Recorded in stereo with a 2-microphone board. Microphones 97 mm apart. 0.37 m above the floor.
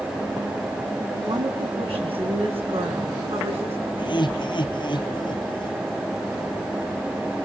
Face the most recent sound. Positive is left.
turn(degrees=55)  # may be behind; listen again after turning